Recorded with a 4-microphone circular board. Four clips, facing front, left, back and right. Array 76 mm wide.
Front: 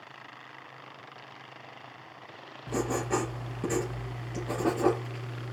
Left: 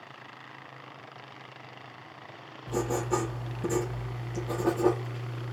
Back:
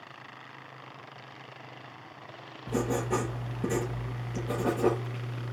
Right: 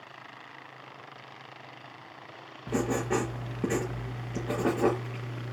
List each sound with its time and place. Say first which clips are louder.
2.7 s writing: right 1 dB, even; 75° right, 4.5 m